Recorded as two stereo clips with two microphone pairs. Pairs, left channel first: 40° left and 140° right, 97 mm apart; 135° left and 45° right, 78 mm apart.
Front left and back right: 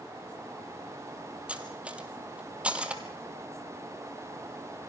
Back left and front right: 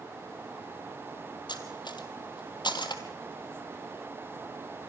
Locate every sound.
1.5 s cutlery clinking: 145° left, 2 m